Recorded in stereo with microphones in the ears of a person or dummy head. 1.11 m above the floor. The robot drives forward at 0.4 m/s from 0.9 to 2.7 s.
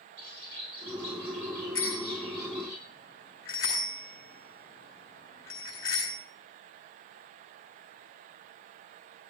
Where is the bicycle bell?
20° left (ahead or behind), 7 m.